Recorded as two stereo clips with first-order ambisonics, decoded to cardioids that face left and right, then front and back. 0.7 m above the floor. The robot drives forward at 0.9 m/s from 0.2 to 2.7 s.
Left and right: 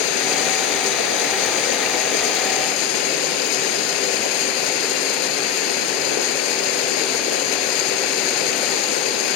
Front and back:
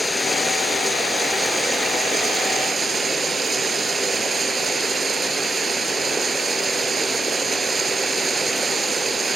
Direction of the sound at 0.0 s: 85° left.